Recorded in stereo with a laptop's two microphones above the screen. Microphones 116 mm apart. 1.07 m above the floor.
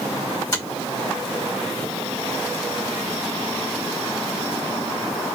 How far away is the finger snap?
About 1.6 m.